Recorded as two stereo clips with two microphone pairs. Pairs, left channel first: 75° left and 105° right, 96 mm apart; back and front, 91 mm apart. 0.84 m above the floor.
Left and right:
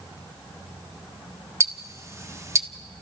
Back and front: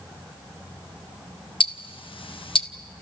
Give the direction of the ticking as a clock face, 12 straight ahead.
6 o'clock.